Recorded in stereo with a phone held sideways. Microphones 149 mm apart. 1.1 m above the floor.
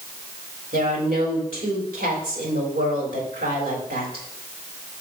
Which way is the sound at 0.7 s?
80° right.